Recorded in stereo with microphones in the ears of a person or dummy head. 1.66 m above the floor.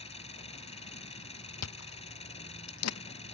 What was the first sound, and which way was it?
An engine running, 30° left (ahead or behind).